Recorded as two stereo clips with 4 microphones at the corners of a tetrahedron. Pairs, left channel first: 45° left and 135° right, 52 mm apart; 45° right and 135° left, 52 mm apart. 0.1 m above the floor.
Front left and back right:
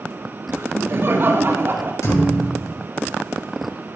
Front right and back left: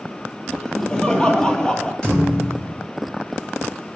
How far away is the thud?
About 8.5 m.